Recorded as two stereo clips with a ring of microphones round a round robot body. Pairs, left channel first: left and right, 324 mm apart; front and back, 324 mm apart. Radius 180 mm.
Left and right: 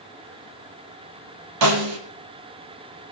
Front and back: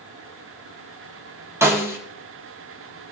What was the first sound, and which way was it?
A snare drum, 100° right.